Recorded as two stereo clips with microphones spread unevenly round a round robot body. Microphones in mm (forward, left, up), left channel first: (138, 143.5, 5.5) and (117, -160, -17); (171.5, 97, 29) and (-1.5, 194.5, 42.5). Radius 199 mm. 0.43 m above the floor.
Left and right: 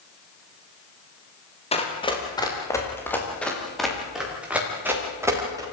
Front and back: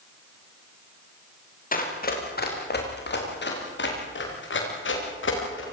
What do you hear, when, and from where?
1.7 s running footsteps: 15° left, 8 m; by 5.6 s 15° right, 11 m